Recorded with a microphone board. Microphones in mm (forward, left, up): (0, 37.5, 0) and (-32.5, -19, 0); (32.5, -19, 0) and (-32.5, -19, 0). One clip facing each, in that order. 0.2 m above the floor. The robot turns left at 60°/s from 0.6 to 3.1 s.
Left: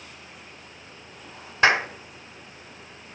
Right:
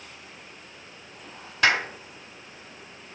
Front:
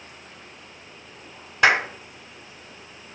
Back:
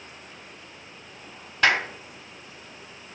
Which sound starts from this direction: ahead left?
A clap, at 1.6 s.